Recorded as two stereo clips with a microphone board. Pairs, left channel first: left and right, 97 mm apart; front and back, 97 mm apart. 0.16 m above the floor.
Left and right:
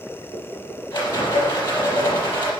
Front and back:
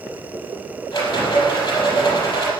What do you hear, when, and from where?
0.9 s a rattle: 50° left, 6 m